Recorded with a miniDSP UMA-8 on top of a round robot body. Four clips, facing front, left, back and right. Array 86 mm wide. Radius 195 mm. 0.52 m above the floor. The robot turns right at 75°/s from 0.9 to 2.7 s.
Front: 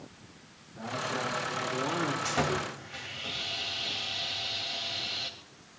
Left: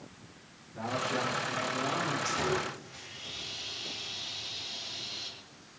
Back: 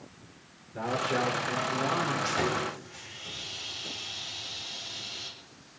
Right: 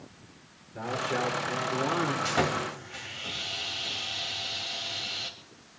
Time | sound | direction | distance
0.8 | a man speaking | 150° right | 3 m
2.2 | sawing | 80° right | 3 m